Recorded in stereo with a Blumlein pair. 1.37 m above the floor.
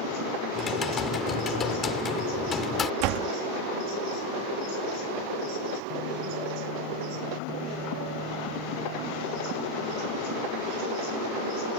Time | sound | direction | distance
0.5 | typing on a keyboard | 20° left | ?
3.0 | a door slam | 40° right | ?